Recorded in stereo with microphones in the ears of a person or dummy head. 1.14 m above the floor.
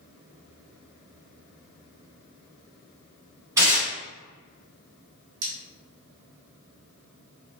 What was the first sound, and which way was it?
Tearing paper, 10° right (ahead or behind).